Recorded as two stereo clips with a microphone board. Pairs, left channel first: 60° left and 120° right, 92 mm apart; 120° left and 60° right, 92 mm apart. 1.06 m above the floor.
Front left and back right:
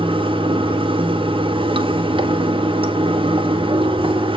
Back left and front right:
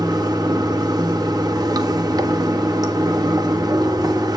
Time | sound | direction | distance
0.0 | running water | 105° right | 1.6 m